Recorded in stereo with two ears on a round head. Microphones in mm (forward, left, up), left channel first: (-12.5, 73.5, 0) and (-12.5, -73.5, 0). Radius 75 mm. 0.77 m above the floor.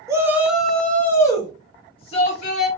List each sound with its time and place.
0.1 s a shout: 20° right (ahead or behind), 0.9 m; by 2.7 s 45° left (ahead or behind), 1.4 m